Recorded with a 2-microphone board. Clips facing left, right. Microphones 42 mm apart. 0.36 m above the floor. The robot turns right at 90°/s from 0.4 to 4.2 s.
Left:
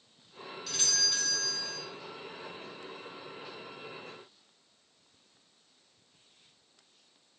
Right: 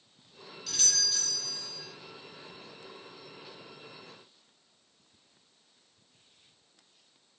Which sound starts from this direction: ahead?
A doorbell, at 0.7 s.